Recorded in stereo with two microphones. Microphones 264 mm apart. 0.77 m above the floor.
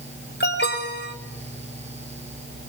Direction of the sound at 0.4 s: 45° left (ahead or behind).